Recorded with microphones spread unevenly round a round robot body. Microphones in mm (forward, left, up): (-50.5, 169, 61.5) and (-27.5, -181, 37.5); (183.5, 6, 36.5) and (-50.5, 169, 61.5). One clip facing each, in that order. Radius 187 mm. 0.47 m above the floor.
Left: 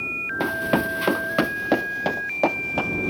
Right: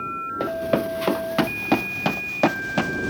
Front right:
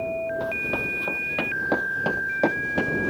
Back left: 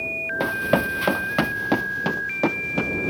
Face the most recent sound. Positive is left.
turn(degrees=-125)